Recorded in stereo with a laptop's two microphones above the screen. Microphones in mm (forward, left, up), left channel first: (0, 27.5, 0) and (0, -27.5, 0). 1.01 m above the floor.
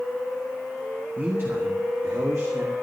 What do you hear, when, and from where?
1.2 s a man speaking: 30° right (ahead or behind), 1.1 m; by 2.7 s 65° right (ahead or behind), 2 m